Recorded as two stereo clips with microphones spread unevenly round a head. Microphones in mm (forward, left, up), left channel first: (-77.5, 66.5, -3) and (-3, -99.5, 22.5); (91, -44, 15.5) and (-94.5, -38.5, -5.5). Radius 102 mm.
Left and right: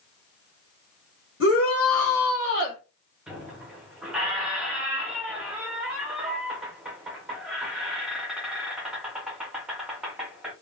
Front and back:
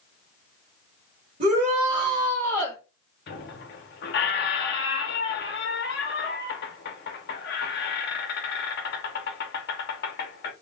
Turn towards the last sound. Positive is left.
turn(degrees=15)